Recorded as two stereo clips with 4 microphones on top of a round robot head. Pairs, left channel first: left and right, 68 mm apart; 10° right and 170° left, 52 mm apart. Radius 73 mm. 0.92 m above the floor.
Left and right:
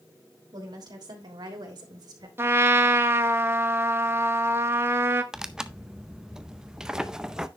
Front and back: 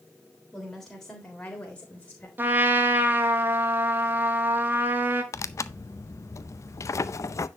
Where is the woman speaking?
95° right, 3 m; by 2.3 s 75° right, 3.5 m.